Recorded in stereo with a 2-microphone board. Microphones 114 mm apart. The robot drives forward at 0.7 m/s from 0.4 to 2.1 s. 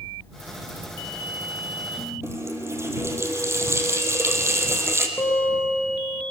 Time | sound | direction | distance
2.2 | a running tap | 25° right (ahead or behind) | 2 m
5.2 | a guitar | 20° left (ahead or behind) | 3.5 m